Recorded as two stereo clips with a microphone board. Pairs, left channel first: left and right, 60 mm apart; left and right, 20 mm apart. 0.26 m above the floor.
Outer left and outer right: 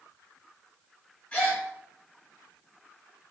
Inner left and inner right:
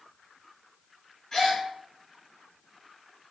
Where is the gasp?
20° left (ahead or behind), 2 m.